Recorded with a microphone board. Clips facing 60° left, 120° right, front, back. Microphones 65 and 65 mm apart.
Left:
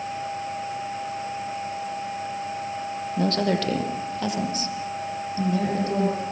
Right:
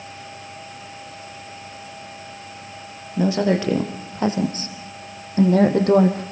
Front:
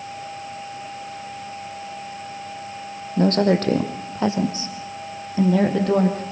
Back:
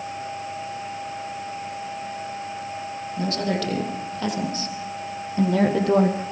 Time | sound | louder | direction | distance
3.2 | a woman speaking | right 4 dB, front 8 dB | 40° right | 4 m